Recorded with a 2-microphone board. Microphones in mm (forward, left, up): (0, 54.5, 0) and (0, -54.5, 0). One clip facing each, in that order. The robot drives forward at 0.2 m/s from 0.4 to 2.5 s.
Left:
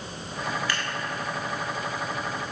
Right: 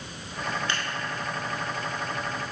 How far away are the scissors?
About 0.8 m.